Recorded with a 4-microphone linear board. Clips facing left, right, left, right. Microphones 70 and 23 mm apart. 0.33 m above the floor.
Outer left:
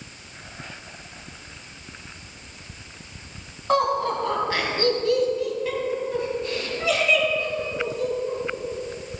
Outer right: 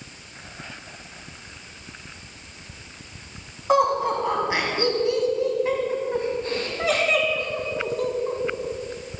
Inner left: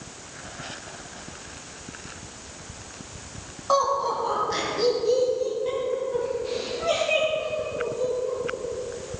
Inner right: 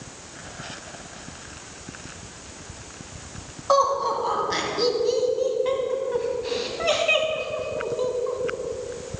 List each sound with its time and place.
3.7 s laughter: 10° right (ahead or behind), 3 m; by 8.4 s 60° right (ahead or behind), 2.5 m